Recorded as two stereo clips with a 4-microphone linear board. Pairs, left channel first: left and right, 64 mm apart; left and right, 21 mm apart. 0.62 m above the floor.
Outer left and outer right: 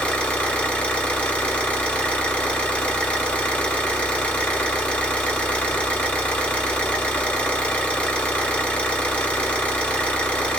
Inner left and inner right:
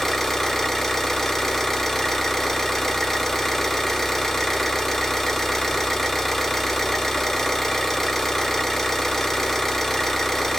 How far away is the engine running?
About 1.5 m.